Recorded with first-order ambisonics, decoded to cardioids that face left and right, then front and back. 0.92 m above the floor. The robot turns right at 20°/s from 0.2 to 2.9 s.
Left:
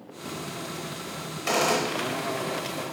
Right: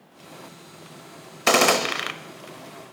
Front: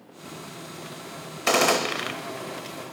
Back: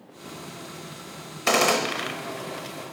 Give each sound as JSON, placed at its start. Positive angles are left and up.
{"t": 1.5, "sound": "a gunshot", "azimuth_deg": -95, "distance_m": 0.8}